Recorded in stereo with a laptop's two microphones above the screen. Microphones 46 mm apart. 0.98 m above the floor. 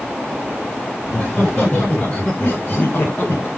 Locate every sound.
1.0 s laughter: 35° left (ahead or behind), 2.5 m; by 3.5 s 55° left (ahead or behind), 1.3 m